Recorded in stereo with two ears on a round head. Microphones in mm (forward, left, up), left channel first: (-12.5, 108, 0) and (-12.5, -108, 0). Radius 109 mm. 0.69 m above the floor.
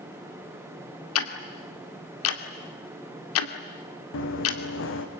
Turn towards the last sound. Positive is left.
turn(degrees=55)  # may be behind; listen again after turning